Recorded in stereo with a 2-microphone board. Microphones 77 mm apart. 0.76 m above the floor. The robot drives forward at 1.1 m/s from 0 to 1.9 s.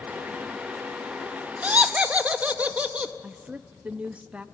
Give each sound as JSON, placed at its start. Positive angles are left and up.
{"t": 1.6, "sound": "laughter", "side_deg": -20, "distance_m": 0.8}
{"t": 3.2, "sound": "a woman speaking", "side_deg": -15, "distance_m": 0.7}